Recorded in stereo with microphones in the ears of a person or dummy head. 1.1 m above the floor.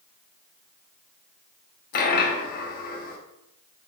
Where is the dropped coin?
55° left (ahead or behind), 0.8 m.